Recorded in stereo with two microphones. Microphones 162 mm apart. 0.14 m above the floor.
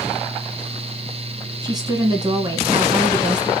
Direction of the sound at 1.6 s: 25° right (ahead or behind).